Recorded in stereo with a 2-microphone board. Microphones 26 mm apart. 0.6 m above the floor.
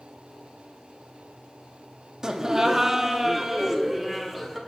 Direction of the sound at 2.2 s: 25° right (ahead or behind).